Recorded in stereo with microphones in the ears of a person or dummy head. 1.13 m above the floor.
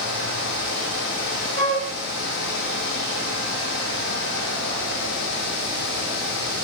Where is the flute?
40° left (ahead or behind), 5.5 m.